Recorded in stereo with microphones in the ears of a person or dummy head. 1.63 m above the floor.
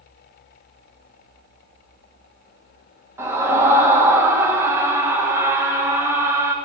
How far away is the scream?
About 2.5 m.